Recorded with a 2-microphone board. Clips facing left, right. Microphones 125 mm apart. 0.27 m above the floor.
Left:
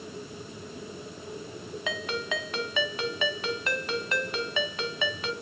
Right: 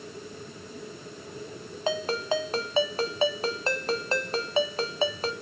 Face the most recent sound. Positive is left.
turn(degrees=-35)  # may be behind; listen again after turning